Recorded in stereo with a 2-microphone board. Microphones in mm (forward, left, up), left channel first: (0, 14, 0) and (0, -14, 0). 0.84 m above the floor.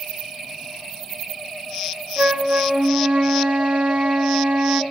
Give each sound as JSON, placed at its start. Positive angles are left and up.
{"t": 2.2, "sound": "a flute", "side_deg": -45, "distance_m": 0.6}